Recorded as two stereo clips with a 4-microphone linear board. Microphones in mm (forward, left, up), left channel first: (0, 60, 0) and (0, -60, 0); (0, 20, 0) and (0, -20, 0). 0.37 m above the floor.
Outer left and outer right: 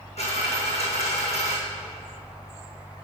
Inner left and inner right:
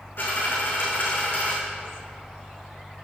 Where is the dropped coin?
65° left (ahead or behind), 3 m.